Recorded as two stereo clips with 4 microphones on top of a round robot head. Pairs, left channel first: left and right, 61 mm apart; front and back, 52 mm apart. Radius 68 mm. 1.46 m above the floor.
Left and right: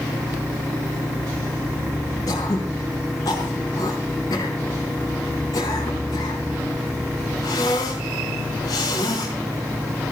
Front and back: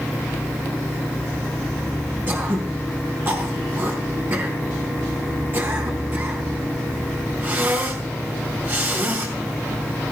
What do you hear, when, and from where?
2.3 s throat clearing: 130° left, 4 m